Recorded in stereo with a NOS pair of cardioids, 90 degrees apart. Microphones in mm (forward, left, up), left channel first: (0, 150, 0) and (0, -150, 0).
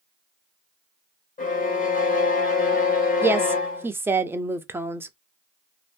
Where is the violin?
25° left, 1.1 m.